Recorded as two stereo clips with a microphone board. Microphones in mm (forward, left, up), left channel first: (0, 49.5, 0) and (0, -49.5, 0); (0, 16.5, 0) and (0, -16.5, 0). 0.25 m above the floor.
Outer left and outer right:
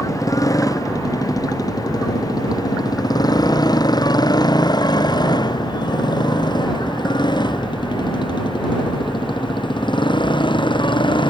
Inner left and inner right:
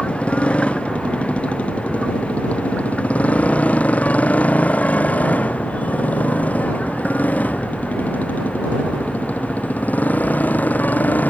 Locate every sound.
0.0 s a motorcycle: 35° left (ahead or behind); by 11.3 s 55° left (ahead or behind)